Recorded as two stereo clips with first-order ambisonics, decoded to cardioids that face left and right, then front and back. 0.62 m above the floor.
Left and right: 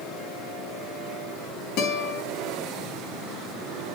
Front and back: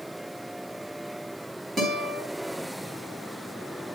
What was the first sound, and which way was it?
A guitar, 110° left.